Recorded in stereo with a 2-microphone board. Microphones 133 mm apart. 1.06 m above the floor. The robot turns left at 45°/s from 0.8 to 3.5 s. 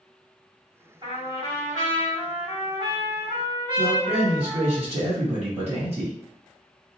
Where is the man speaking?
45° right (ahead or behind), 1.5 m.